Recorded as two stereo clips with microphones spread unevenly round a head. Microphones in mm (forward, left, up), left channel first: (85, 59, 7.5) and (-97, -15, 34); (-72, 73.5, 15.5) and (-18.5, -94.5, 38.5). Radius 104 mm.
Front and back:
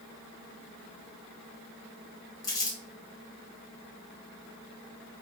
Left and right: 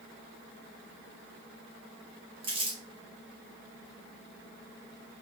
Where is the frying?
No frying in this recording.